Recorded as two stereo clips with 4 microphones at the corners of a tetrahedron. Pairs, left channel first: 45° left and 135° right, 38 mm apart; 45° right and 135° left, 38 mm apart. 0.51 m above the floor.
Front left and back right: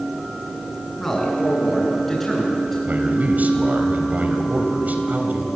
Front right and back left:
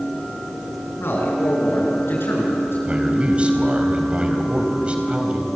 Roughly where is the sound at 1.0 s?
Ahead right.